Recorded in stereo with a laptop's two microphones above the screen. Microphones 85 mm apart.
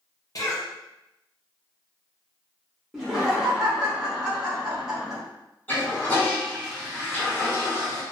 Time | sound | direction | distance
0.3 | a cough | 45° left (ahead or behind) | 0.8 m
2.9 | laughter | 5° right (ahead or behind) | 1.3 m
5.7 | a toilet flushing | 20° left (ahead or behind) | 1.3 m